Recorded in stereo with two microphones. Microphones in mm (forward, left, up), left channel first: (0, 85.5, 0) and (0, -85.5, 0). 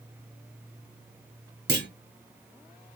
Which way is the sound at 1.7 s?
80° right.